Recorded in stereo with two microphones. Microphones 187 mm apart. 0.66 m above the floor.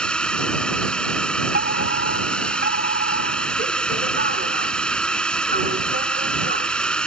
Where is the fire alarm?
60° right (ahead or behind).